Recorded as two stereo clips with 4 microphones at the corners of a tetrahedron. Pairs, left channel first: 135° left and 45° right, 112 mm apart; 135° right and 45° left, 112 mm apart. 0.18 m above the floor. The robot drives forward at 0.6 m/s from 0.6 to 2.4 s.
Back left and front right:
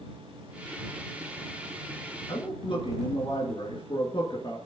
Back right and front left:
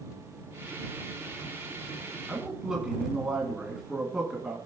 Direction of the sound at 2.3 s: 125° left.